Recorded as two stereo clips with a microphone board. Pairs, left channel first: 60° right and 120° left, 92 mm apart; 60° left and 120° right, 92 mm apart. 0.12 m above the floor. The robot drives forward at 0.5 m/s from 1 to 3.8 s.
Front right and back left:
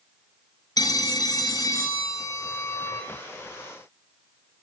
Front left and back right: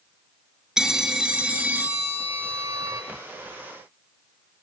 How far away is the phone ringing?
About 1.4 m.